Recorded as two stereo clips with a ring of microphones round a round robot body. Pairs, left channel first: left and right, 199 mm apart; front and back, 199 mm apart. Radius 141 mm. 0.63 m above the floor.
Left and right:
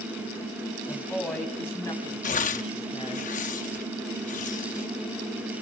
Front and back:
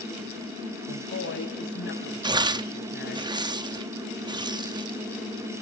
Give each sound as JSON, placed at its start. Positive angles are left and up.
{"t": 0.9, "sound": "a woman speaking", "azimuth_deg": 0, "distance_m": 4.5}
{"t": 2.2, "sound": "tearing paper", "azimuth_deg": 120, "distance_m": 0.7}